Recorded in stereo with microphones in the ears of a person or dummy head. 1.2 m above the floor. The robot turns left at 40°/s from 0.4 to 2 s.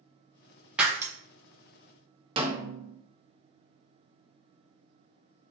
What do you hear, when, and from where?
0.8 s breaking glass: 5° right (ahead or behind), 0.5 m; by 1.1 s 20° right (ahead or behind), 0.5 m
2.4 s a snare drum: 25° right (ahead or behind), 0.5 m